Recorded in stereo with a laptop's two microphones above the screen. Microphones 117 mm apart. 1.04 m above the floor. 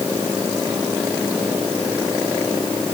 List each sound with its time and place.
Only background noise.